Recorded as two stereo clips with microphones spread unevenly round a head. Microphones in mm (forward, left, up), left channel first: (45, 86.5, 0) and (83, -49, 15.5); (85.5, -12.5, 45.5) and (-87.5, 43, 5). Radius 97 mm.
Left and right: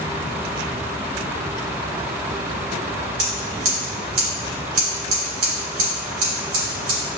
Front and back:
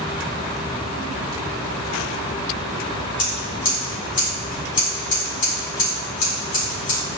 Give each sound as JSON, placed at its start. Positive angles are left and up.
{"t": 3.2, "sound": "scissors", "azimuth_deg": -70, "distance_m": 3.5}